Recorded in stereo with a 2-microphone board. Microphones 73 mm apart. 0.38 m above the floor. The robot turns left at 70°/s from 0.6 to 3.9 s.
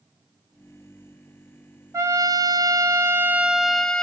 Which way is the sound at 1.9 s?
55° right.